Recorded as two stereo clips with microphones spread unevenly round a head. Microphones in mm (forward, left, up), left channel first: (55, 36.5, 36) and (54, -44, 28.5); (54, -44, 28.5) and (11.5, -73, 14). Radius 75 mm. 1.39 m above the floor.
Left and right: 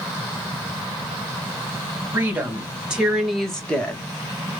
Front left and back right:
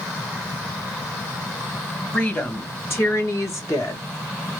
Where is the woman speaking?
25° right, 1.6 m; by 4.0 s 15° left, 1.3 m.